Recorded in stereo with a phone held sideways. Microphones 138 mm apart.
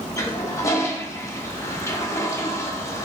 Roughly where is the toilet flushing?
Left.